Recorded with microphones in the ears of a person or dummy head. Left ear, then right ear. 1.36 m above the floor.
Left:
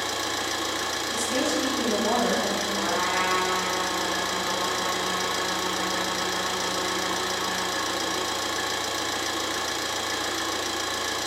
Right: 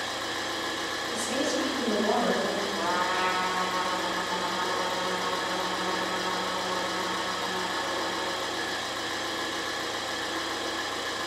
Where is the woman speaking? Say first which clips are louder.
Left 2 dB; 20° right (ahead or behind), 1.4 m.